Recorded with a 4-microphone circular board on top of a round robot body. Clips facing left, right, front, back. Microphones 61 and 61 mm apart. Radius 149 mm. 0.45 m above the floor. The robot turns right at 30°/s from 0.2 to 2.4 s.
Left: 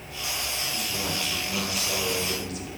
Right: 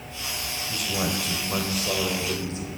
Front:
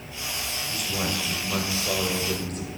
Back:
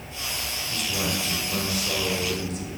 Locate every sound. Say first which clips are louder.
0.7 s a man speaking: right 7 dB, back 1 dB; 85° right, 3.5 m; by 2.7 s 35° right, 3.5 m